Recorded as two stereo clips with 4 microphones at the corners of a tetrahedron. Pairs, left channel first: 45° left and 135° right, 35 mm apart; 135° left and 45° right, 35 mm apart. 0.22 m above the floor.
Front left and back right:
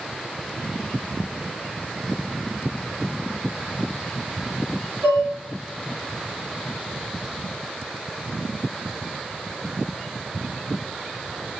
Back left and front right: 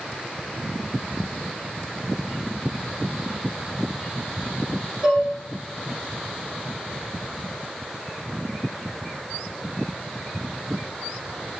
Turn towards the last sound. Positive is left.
turn(degrees=-115)